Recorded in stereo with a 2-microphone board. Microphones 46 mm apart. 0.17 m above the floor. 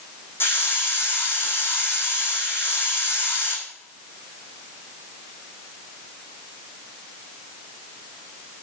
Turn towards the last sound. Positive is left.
turn(degrees=55)  # may be behind; listen again after turning